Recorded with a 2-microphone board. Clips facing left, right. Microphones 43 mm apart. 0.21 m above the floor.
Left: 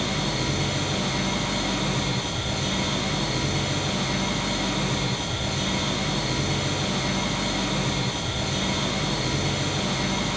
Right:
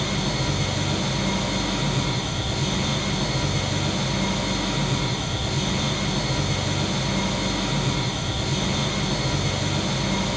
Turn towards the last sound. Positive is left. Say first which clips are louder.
# right 1 dB
turn(degrees=35)  # may be behind; listen again after turning